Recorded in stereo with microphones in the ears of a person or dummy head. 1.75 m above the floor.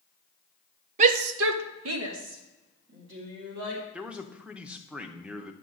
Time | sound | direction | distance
1.0 | a shout | 45° right (ahead or behind) | 0.6 m
3.9 | a man speaking | centre (ahead or behind) | 0.8 m